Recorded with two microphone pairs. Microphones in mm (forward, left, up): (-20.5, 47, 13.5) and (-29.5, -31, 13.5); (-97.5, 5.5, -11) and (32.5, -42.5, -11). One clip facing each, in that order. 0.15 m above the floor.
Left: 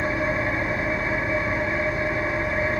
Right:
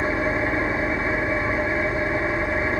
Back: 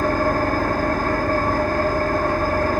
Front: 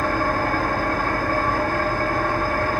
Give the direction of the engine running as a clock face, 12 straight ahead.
5 o'clock.